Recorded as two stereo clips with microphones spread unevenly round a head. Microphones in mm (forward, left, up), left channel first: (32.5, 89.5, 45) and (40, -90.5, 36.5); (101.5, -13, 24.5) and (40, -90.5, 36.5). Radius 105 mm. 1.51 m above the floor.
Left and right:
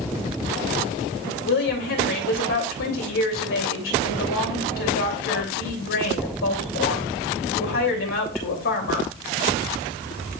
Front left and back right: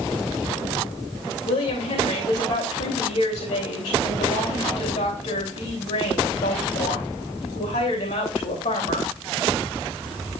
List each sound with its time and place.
1.4 s a woman speaking: 80° left, 3 m